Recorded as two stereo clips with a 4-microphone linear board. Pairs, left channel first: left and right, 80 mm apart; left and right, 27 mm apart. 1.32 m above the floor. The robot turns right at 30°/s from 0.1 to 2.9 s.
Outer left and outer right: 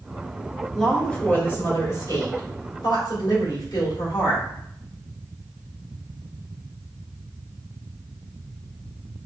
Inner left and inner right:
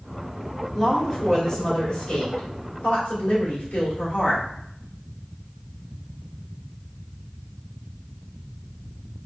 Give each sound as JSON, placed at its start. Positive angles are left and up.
{"t": 0.7, "sound": "a woman speaking", "azimuth_deg": 5, "distance_m": 2.5}